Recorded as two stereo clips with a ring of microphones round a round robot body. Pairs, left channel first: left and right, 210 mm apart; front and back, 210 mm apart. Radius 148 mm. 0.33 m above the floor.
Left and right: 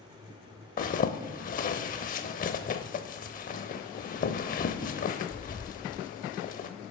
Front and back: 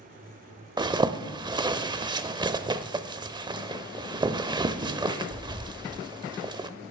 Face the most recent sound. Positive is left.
turn(degrees=120)